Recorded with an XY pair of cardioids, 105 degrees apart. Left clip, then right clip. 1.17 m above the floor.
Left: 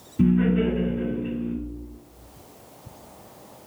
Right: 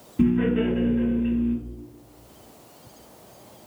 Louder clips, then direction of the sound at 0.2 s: Even; 20° right.